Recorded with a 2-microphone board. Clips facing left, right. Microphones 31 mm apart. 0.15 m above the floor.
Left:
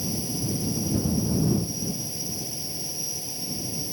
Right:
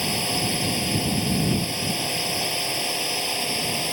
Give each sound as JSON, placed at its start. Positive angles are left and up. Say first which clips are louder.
{"t": 0.0, "sound": "a drone", "louder": "right 6 dB", "side_deg": -65}